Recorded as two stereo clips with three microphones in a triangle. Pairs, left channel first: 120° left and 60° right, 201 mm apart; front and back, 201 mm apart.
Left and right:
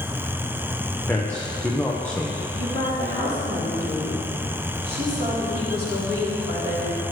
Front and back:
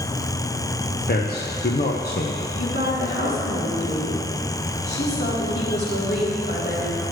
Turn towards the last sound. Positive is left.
turn(degrees=-25)